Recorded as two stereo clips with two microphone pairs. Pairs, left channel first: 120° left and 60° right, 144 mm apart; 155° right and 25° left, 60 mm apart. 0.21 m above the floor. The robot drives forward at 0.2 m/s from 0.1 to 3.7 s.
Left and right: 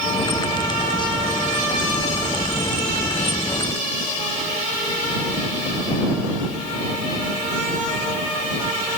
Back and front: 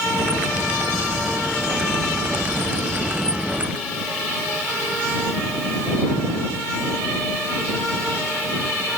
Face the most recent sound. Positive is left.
No sound to turn to.